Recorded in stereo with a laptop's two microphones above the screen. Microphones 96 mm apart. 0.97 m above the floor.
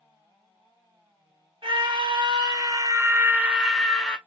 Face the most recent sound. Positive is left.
turn(degrees=15)  # may be behind; listen again after turning